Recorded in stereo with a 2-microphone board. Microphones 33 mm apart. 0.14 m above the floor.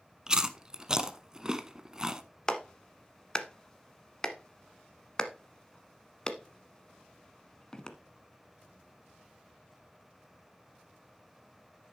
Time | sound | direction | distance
0.3 | chewing | 20° right (ahead or behind) | 0.7 m
2.5 | a clap | 20° left (ahead or behind) | 1.0 m